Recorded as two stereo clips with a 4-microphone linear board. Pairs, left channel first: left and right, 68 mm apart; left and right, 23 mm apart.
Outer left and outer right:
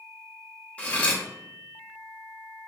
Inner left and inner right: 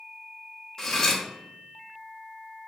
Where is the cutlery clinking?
20° left (ahead or behind), 0.5 m.